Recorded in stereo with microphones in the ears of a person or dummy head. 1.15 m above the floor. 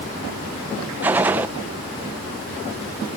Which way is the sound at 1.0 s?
10° right (ahead or behind).